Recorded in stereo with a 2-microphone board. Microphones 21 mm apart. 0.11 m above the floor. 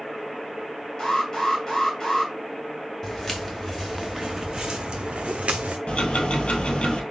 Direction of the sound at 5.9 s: 55° left (ahead or behind).